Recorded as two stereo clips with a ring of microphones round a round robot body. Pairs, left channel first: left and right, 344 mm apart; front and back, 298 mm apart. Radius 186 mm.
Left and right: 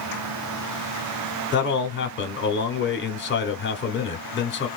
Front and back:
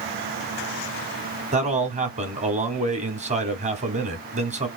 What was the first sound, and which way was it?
A man speaking, 125° left.